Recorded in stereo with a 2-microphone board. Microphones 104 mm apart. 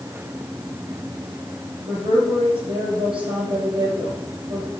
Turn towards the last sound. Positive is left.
turn(degrees=-65)  # may be behind; listen again after turning